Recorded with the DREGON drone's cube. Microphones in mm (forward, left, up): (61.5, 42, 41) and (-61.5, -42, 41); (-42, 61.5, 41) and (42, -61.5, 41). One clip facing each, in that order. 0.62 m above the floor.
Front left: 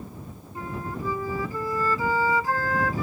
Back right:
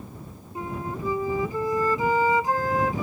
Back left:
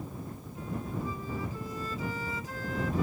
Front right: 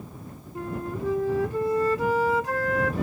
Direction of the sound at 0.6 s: 75° right.